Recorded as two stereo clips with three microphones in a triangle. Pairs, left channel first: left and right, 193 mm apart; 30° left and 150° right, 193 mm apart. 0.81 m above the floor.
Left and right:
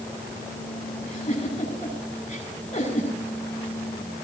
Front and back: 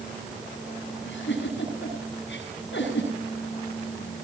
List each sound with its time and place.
1.0 s a giggle: 40° left, 8.5 m